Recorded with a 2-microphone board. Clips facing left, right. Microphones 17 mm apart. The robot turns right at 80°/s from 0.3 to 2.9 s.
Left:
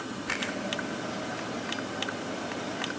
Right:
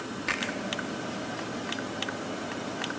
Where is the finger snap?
75° right (ahead or behind), 9.5 m; by 0.5 s 60° right (ahead or behind), 9.5 m.